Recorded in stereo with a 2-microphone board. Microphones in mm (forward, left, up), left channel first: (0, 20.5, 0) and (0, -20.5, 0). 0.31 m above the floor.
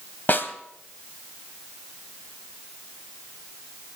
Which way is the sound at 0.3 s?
50° left (ahead or behind).